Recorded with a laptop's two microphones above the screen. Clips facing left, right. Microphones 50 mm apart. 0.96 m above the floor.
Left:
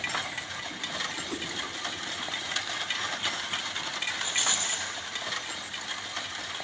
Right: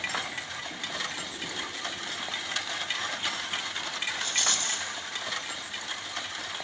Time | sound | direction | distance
1.3 | a whoosh | 80° left | 4 m
4.2 | a rattle | 20° left (ahead or behind) | 2 m